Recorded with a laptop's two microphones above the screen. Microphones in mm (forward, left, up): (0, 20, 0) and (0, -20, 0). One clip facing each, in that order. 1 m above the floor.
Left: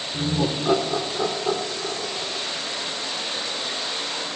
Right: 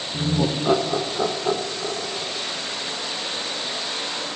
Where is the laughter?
10° right (ahead or behind), 0.8 m.